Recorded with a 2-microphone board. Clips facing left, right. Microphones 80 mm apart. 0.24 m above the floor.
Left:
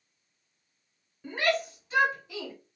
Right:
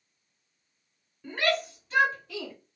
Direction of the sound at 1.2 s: 5° left (ahead or behind).